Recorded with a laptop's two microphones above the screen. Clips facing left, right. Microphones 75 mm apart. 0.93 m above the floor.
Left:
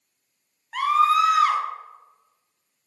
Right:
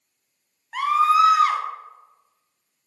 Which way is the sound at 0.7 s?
5° right (ahead or behind).